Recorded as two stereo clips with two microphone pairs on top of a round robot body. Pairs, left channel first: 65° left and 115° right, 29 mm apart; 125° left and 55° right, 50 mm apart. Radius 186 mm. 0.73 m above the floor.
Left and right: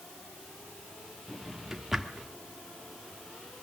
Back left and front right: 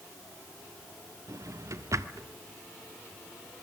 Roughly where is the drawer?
Ahead right.